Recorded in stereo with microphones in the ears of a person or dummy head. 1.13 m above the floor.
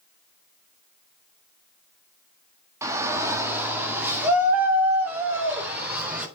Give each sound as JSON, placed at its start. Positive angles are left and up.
{"t": 2.8, "sound": "a shout", "side_deg": -15, "distance_m": 1.8}